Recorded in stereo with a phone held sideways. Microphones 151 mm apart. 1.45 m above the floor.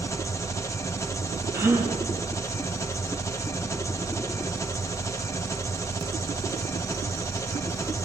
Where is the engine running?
20° left (ahead or behind), 1.0 m.